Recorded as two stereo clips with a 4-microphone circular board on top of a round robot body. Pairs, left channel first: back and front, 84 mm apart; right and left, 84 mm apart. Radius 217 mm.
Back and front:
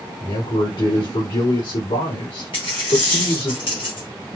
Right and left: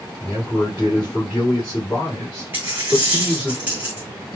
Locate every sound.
0.2 s a man speaking: 170° right, 2.5 m
2.5 s a dropped coin: 160° left, 0.6 m